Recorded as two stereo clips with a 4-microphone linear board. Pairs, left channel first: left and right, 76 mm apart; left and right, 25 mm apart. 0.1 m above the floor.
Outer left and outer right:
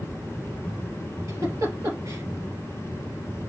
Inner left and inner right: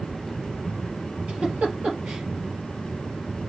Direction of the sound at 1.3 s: 45° right (ahead or behind).